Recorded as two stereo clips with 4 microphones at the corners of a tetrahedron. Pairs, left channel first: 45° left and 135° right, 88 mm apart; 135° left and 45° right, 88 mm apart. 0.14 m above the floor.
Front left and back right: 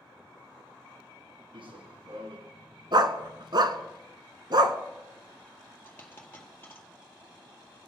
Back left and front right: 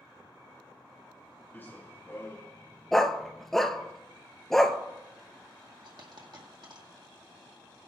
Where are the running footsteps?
155° right, 1.4 m; by 3.9 s 165° right, 2.5 m.